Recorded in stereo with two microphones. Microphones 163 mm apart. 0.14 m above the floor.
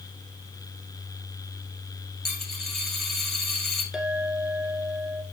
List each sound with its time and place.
2.2 s a dropped coin: 5° left (ahead or behind), 2 m
3.9 s a clink: 5° right (ahead or behind), 1.5 m